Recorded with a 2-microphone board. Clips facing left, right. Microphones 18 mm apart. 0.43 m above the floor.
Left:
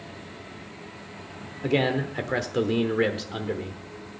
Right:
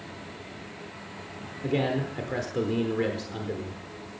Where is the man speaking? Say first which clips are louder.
Left 3 dB; 30° left (ahead or behind), 0.9 m.